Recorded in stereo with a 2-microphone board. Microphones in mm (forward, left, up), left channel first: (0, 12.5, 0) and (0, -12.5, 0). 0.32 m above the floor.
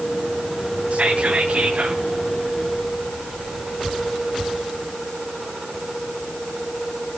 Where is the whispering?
60° right (ahead or behind), 1.7 m.